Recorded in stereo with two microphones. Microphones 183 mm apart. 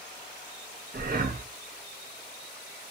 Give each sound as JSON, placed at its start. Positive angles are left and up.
{"t": 0.9, "sound": "breathing", "side_deg": -55, "distance_m": 0.7}